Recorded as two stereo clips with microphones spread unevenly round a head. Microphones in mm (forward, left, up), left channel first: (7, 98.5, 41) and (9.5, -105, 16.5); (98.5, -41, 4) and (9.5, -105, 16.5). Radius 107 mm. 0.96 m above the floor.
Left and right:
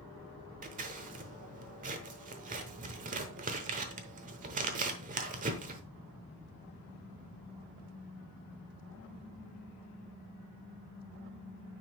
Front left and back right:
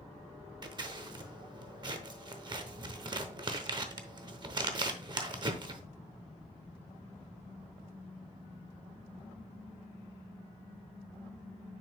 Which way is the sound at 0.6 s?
140° right.